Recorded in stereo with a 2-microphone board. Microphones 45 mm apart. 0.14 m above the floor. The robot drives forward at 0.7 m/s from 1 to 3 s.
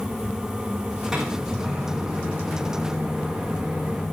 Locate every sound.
1.1 s a microwave: 10° right (ahead or behind), 7 m